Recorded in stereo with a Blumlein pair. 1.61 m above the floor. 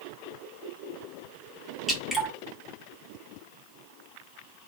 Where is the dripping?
5° right, 1.2 m.